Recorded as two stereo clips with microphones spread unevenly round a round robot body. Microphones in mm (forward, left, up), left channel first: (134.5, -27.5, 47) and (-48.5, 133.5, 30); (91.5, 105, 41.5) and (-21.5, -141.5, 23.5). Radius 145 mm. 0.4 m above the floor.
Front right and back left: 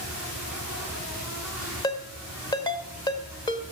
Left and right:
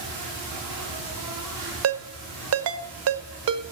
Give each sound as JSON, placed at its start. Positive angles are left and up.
{"t": 0.0, "sound": "an insect", "azimuth_deg": -135, "distance_m": 8.5}
{"t": 1.8, "sound": "a ringtone", "azimuth_deg": -115, "distance_m": 1.0}